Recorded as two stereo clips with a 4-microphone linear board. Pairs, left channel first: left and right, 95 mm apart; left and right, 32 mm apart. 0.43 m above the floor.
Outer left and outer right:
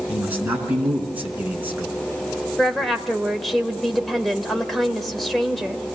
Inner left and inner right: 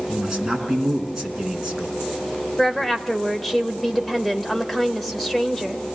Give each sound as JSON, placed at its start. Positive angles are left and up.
{"t": 0.1, "sound": "a man speaking", "side_deg": -15, "distance_m": 5.0}
{"t": 2.6, "sound": "a woman speaking", "side_deg": 0, "distance_m": 1.8}